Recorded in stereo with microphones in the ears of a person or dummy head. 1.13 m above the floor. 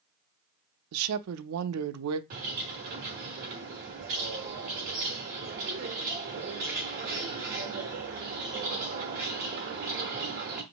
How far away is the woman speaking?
About 0.5 m.